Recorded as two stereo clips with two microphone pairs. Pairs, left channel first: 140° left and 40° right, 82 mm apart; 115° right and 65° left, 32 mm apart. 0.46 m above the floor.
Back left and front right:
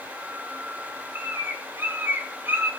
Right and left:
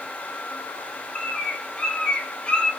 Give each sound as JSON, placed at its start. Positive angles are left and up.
{"t": 1.1, "sound": "a bird", "azimuth_deg": -80, "distance_m": 1.6}